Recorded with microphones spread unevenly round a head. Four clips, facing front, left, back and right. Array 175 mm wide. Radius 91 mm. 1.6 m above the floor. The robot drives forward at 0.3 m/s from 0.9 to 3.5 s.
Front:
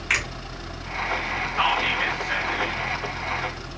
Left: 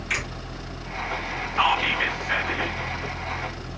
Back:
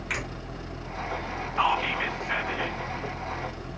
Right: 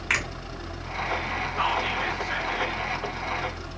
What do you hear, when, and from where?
0.1 s a finger snap: 65° right, 2 m
1.6 s whispering: 60° left, 0.6 m; by 2.8 s 100° left, 0.5 m